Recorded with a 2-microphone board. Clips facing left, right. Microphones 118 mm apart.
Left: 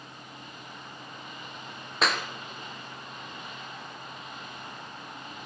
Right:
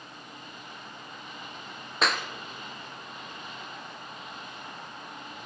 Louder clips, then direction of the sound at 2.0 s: Even; centre (ahead or behind).